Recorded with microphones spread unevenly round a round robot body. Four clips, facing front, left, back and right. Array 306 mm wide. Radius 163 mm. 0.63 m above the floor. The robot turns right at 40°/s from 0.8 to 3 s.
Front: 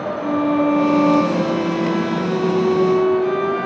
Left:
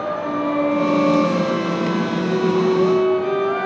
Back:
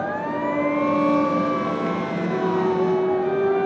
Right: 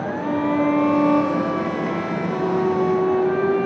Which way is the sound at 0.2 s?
5° right.